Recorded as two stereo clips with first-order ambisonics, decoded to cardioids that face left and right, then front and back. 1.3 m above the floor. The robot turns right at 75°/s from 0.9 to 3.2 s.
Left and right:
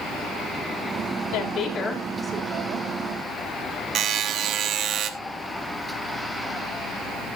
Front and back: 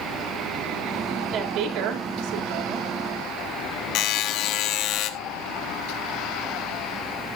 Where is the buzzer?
40° right, 1.0 m.